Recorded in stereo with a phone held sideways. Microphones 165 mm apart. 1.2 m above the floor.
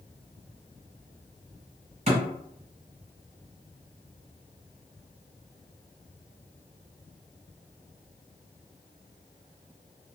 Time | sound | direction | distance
2.1 | a thud | 45° right (ahead or behind) | 1.4 m